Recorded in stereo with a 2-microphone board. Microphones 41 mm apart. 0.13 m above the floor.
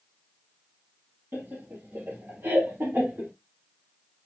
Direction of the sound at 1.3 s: 55° right (ahead or behind).